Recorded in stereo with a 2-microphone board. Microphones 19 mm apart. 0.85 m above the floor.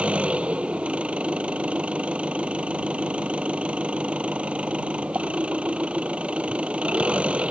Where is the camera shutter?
I don't hear a camera shutter.